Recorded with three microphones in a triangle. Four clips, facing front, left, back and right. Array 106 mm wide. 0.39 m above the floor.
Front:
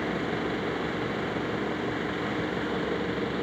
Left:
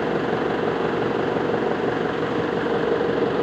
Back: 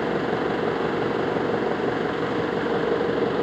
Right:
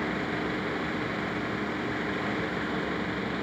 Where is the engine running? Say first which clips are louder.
Left 9 dB, back 6 dB; 120° left.